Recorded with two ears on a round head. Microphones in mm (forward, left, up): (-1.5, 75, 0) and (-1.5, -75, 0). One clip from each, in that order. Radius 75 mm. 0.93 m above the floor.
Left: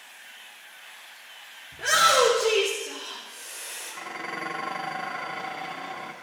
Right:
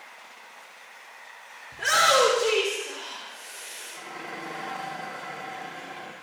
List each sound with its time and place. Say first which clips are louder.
1.7 s a shout: even; 50° right (ahead or behind), 2.5 m; by 3.9 s 5° left (ahead or behind), 3 m
3.9 s dishes clattering: left 5 dB; 45° left (ahead or behind), 1.3 m